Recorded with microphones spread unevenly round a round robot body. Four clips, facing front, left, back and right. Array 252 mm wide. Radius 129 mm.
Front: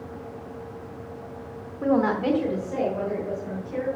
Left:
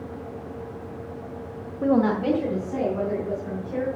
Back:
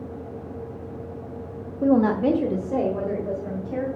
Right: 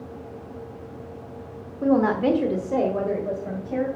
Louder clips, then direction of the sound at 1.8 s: Right 1 dB, back 3 dB; 155° left.